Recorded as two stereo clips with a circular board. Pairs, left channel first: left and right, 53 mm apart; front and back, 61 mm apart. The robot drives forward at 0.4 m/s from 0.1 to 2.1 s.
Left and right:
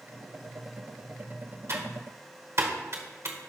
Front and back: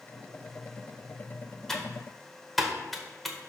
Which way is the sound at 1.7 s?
80° right.